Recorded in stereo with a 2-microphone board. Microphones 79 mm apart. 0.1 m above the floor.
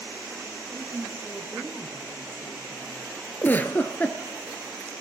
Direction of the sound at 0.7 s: 10° left (ahead or behind).